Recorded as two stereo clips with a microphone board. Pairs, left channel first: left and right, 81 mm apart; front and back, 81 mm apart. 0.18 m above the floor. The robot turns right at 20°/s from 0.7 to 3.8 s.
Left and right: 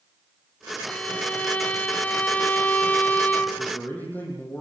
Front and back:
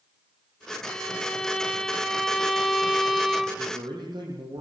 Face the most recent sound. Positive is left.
turn(degrees=160)